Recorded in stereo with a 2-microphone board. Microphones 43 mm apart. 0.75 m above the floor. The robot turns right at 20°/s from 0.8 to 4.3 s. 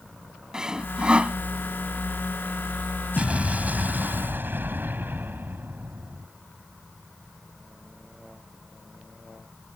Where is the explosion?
30° right (ahead or behind); by 6.3 s 50° right (ahead or behind).